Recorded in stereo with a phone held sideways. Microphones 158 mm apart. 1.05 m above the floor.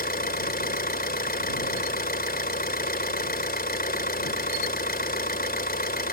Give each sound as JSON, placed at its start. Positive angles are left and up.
{"t": 0.0, "sound": "an engine running", "side_deg": 75}